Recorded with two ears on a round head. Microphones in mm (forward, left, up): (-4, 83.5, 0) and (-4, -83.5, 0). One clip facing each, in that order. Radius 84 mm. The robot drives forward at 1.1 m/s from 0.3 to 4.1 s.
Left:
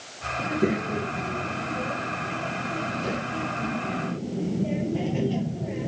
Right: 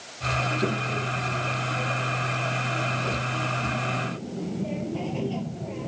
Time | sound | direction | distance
0.4 | a child speaking | 20° left (ahead or behind) | ?